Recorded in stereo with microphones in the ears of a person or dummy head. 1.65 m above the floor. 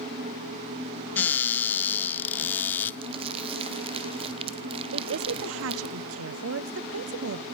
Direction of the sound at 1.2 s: 10° left (ahead or behind).